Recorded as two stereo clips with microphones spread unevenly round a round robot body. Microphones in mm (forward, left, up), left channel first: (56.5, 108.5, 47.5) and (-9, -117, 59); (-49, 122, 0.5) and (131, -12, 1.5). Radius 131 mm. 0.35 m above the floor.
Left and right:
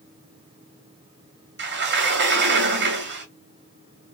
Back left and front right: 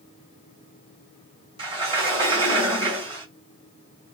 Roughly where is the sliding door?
Right.